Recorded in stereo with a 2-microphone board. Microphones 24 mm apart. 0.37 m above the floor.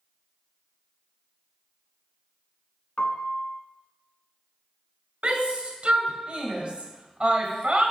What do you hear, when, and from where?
3.0 s a piano: 55° left (ahead or behind), 0.8 m
5.2 s a shout: 50° right (ahead or behind), 1.6 m